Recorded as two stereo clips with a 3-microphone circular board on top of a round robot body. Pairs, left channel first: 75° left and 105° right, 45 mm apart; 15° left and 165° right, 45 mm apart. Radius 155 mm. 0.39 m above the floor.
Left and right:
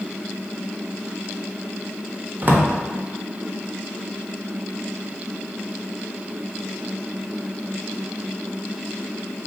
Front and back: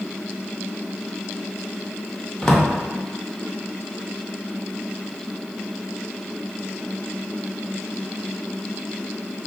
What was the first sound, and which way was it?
A drawer, 55° right.